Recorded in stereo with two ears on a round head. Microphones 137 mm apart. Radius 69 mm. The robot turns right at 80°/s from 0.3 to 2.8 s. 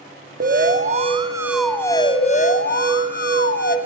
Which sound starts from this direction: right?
An alarm, at 0.4 s.